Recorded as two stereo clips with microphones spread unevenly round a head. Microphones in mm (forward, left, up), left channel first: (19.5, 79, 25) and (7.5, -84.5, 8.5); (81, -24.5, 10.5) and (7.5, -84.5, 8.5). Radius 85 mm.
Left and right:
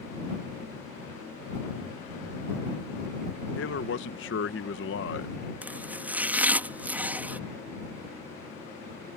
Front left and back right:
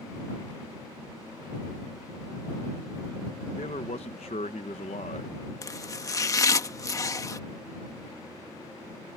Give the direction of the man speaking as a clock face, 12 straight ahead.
9 o'clock.